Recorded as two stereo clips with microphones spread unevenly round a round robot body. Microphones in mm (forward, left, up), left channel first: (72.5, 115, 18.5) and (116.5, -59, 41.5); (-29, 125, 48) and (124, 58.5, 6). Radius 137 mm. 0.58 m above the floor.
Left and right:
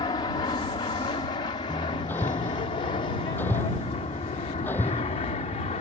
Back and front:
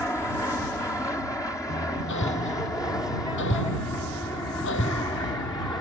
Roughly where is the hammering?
Behind.